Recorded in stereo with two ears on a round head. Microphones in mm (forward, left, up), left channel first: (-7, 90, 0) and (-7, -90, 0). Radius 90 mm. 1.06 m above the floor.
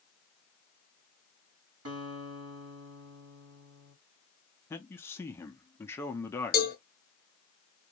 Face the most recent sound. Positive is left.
turn(degrees=45)  # may be behind; listen again after turning